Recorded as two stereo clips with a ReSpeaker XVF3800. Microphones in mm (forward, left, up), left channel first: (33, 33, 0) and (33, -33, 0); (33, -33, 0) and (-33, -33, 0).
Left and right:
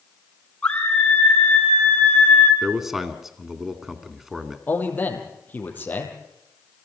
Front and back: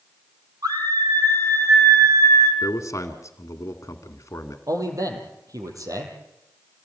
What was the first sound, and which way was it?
A scream, 165° left.